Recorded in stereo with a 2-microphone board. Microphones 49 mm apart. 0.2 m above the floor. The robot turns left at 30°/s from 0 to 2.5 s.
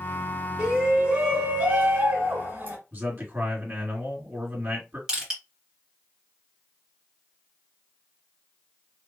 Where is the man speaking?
40° right (ahead or behind), 2.5 m.